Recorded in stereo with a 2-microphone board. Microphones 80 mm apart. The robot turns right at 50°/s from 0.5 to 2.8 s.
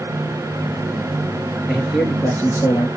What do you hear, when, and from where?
1.7 s a man speaking: 10° right, 2.5 m; by 2.9 s 45° left, 2.5 m